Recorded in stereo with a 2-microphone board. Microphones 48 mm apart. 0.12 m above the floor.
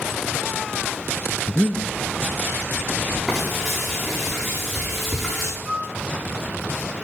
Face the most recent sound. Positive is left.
turn(degrees=-10)  # may be behind; listen again after turning